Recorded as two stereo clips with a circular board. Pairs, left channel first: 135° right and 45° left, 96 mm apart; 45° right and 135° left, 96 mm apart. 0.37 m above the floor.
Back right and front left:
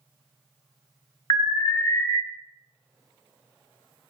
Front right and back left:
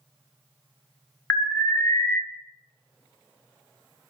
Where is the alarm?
110° right, 1.3 m.